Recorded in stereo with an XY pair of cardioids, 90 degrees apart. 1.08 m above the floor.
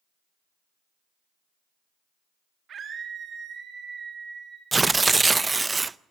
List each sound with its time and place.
2.7 s a scream: 60° right, 1.8 m; by 4.6 s 50° right, 3 m
4.7 s tearing paper: 25° right, 0.6 m